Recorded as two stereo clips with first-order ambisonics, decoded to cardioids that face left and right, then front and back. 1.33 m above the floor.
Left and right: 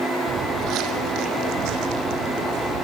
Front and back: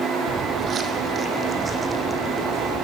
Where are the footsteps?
130° right, 2 m; by 2.9 s 95° right, 4.5 m.